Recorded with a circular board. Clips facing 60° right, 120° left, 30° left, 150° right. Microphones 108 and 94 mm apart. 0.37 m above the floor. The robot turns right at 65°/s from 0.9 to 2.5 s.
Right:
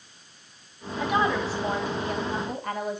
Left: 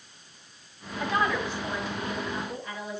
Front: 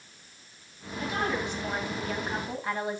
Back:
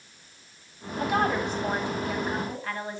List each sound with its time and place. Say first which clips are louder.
1.0 s a woman speaking: right 3 dB, back 5 dB; 140° right, 2.5 m; by 3.0 s 45° right, 2.5 m